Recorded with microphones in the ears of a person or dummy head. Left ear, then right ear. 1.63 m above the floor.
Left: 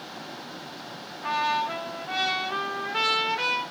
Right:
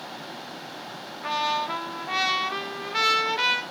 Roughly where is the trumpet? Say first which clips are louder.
Even; right.